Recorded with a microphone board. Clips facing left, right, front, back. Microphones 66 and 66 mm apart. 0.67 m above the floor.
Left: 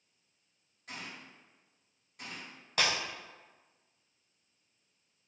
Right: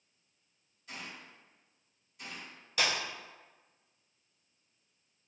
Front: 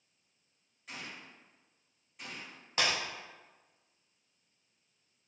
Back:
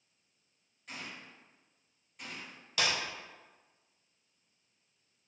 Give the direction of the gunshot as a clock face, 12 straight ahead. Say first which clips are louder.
Left 1 dB, even; 9 o'clock.